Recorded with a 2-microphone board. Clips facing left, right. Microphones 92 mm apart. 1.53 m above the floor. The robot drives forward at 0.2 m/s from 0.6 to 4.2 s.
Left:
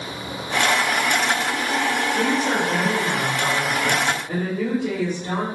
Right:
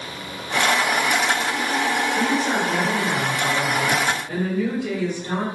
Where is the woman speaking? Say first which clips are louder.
Even; 10° left (ahead or behind), 1.4 m.